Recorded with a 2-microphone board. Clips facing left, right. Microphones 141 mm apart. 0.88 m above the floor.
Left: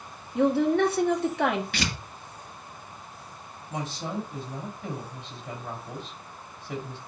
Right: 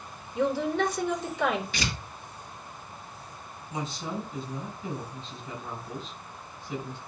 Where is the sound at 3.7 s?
85° left, 5.5 m.